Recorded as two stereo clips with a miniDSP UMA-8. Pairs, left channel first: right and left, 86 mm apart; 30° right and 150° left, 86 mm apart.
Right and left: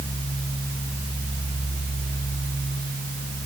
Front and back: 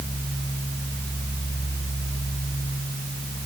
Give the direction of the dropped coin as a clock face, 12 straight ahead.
No dropped coin in this recording.